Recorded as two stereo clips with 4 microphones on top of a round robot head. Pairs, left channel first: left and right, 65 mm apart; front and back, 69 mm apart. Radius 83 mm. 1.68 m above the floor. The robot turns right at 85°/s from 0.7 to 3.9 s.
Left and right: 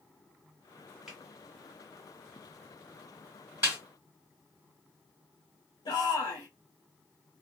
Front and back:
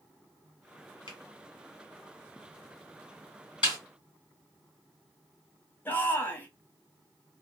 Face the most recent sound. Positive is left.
turn(degrees=60)